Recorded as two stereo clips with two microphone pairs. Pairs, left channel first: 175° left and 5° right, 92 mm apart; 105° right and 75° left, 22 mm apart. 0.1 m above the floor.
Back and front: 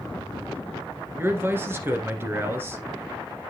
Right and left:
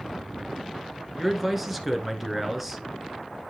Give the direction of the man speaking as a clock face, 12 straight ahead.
12 o'clock.